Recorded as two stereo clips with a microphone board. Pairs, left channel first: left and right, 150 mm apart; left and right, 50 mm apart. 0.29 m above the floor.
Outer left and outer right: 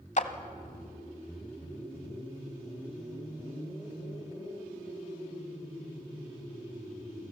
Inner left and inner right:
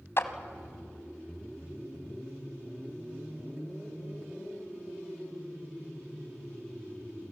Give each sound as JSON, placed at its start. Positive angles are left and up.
{"t": 0.2, "sound": "a clap", "side_deg": 55, "distance_m": 1.3}